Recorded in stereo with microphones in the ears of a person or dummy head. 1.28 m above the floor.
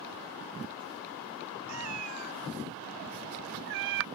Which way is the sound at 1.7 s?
80° right.